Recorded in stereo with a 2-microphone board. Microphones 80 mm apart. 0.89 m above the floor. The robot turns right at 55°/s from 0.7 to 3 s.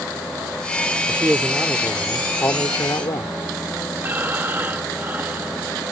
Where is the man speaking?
40° right; by 3.4 s 65° left.